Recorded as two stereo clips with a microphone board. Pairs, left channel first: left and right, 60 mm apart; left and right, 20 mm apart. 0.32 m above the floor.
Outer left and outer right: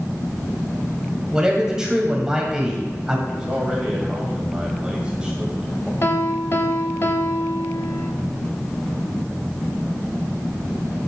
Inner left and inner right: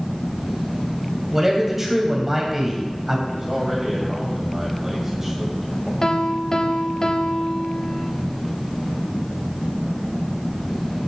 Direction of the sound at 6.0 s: 45° left (ahead or behind).